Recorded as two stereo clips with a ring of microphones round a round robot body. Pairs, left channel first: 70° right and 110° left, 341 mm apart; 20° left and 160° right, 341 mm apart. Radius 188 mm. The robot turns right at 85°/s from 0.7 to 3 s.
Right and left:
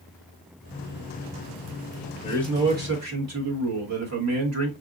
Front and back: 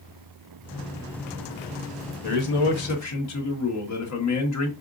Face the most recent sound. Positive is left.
turn(degrees=70)